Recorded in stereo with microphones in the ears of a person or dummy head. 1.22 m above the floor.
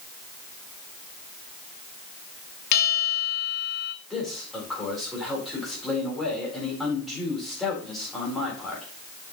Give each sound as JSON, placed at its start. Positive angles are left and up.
{"t": 2.7, "sound": "a bell", "side_deg": 55, "distance_m": 1.4}
{"t": 4.1, "sound": "a man speaking", "side_deg": 0, "distance_m": 4.0}